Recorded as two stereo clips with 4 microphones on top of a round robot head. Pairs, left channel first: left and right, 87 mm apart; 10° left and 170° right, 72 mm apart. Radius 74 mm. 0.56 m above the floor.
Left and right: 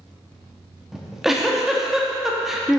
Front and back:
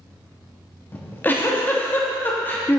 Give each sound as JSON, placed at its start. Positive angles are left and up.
{"t": 0.9, "sound": "a giggle", "azimuth_deg": -10, "distance_m": 1.3}